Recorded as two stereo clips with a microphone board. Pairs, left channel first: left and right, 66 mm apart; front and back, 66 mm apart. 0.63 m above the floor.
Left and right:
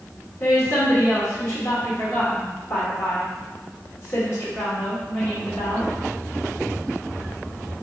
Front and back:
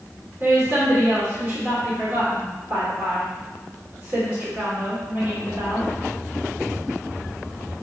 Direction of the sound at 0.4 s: 130° left.